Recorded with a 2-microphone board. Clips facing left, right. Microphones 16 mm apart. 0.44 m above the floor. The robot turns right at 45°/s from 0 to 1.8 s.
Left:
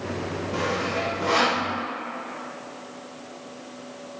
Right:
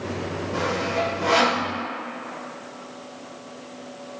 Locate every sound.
0.5 s sawing: 20° left (ahead or behind), 3.5 m; by 1.6 s 30° right (ahead or behind), 3.5 m